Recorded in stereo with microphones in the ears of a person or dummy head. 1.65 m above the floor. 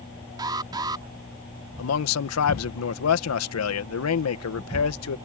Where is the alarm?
25° right (ahead or behind).